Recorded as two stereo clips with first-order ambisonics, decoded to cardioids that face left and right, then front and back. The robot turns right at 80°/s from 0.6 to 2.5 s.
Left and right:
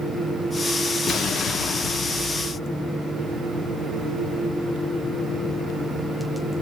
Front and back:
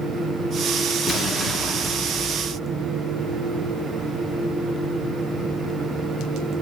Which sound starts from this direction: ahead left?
An explosion, at 1.1 s.